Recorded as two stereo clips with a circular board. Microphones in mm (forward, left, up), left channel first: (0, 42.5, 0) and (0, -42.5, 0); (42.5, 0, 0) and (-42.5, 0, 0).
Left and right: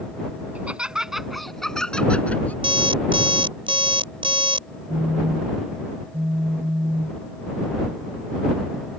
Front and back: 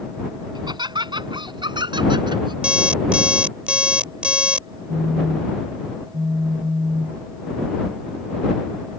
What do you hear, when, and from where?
0.6 s laughter: 160° right; by 2.5 s 160° left
2.6 s an alarm clock: 100° right
4.9 s a phone buzzing: 140° right